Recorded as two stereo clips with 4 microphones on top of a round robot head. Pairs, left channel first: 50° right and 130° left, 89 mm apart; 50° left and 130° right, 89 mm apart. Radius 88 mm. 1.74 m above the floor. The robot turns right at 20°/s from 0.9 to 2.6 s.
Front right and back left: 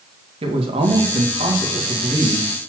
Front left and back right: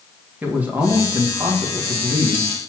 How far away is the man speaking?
About 1.5 m.